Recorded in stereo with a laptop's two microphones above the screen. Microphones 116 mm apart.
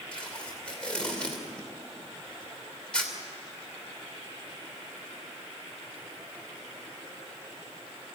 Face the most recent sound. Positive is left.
turn(degrees=10)  # may be behind; listen again after turning